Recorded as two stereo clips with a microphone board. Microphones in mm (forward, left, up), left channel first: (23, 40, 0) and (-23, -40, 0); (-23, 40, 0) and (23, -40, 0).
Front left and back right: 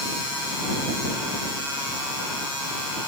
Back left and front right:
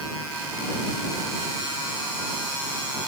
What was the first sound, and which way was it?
Only background noise.